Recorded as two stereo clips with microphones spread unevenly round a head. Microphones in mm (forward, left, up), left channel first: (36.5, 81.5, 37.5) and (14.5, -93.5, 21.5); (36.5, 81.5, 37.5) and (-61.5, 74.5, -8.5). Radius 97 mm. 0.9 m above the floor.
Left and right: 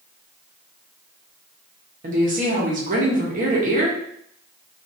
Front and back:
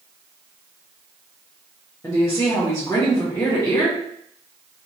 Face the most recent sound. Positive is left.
turn(degrees=-80)